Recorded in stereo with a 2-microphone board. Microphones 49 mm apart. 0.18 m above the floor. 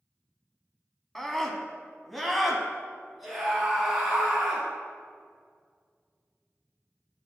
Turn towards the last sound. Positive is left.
turn(degrees=-5)  # may be behind; listen again after turning